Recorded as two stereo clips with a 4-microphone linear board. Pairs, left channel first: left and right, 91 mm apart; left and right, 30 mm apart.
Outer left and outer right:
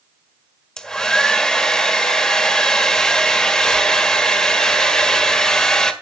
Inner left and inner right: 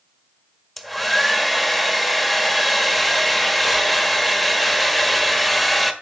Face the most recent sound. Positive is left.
turn(degrees=5)  # may be behind; listen again after turning